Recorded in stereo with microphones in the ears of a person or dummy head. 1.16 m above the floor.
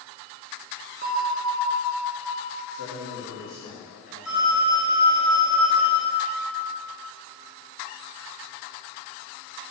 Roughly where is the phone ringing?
Centre.